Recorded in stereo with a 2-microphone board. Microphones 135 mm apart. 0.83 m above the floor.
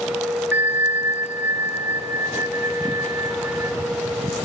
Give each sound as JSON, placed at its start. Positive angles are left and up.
{"t": 0.5, "sound": "a bell", "side_deg": -15, "distance_m": 0.6}